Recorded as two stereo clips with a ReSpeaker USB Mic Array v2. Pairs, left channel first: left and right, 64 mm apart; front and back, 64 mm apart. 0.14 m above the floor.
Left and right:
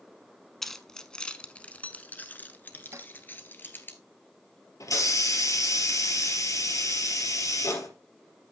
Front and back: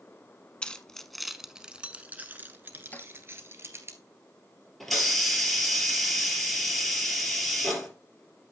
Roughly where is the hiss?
Left.